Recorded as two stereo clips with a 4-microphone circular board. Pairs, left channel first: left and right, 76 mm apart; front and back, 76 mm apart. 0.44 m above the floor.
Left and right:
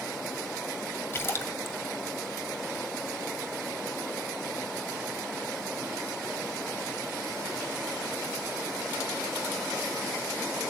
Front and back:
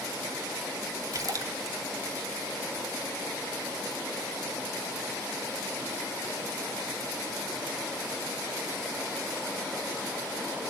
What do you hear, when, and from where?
1.1 s a splash: 145° left, 1.7 m